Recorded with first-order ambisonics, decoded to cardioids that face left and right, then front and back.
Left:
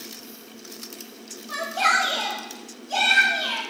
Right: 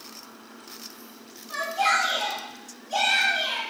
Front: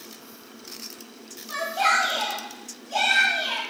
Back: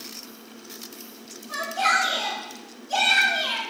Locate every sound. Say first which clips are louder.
1.5 s a shout: left 2 dB, even; 65° left, 1.2 m; by 3.6 s 145° left, 1.6 m